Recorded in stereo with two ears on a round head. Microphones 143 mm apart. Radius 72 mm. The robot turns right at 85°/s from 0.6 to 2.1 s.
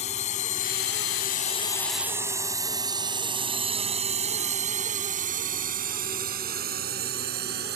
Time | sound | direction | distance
0.0 | a drone | 40° left (ahead or behind) | ?